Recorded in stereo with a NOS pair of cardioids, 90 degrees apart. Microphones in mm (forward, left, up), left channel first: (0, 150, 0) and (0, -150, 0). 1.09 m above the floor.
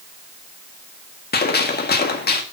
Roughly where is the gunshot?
Ahead left.